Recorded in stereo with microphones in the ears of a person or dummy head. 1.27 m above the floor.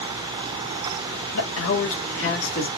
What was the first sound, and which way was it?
A man speaking, 80° left.